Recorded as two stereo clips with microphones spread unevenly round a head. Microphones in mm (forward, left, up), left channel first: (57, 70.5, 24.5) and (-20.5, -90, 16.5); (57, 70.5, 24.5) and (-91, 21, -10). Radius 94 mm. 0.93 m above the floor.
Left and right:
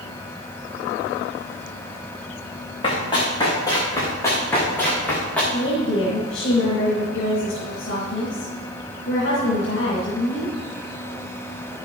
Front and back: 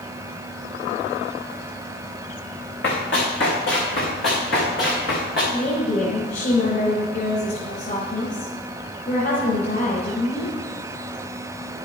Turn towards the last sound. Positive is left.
turn(degrees=50)